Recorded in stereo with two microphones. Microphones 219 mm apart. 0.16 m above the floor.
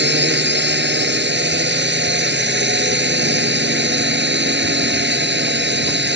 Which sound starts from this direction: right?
A drone, at 0.0 s.